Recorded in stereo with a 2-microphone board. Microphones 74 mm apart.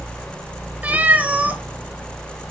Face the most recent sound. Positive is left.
turn(degrees=-20)  # may be behind; listen again after turning